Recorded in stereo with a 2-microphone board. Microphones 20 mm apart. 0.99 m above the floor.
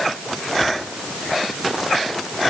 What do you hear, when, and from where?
Only background noise.